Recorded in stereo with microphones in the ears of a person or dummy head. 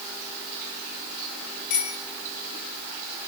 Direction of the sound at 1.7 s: 55° left (ahead or behind).